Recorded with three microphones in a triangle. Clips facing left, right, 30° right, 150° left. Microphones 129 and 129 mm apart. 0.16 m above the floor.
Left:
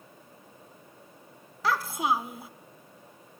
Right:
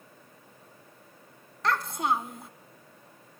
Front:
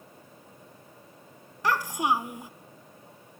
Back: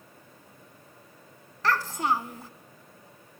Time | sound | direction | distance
1.6 | a child speaking | 15° left | 0.7 m